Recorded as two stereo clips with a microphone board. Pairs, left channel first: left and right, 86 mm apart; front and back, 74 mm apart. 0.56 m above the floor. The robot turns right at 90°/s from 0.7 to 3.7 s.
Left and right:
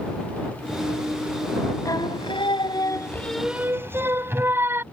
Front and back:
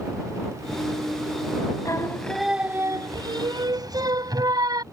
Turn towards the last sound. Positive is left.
turn(degrees=-150)